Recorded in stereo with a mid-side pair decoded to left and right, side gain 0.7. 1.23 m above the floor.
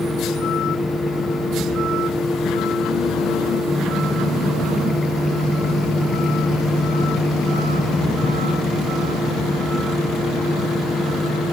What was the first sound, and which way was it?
A fan, 10° left.